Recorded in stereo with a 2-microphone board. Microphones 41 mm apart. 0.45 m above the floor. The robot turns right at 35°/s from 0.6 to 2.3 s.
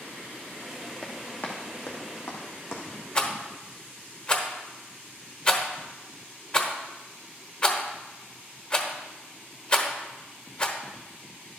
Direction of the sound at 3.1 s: 30° left (ahead or behind).